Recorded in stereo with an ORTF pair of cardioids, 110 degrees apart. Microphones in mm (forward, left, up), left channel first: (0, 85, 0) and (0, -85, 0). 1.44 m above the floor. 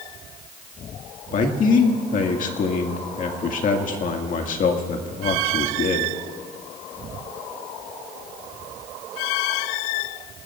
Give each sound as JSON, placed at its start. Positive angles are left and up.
{"t": 1.3, "sound": "a man speaking", "azimuth_deg": 50, "distance_m": 2.0}